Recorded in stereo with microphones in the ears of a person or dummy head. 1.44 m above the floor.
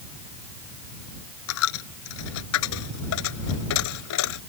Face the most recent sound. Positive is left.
turn(degrees=75)  # may be behind; listen again after turning